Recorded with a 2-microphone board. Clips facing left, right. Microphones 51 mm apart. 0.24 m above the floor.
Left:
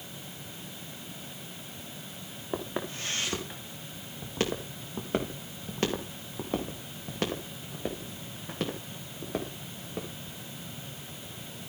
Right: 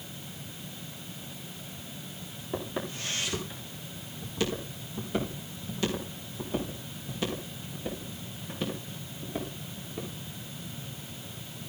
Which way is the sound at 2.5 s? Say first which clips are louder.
Even; 30° left (ahead or behind).